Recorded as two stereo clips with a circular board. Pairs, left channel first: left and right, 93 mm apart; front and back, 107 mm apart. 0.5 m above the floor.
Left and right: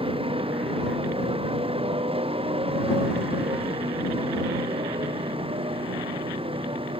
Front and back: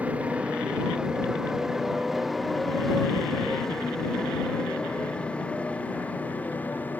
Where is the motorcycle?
105° right; by 7.0 s 75° right.